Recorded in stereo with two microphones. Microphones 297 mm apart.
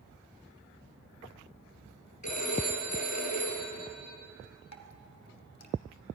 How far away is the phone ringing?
About 5 m.